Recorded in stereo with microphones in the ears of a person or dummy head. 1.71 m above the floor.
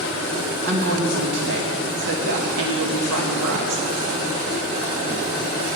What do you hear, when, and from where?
0.6 s a woman speaking: 65° right (ahead or behind), 2 m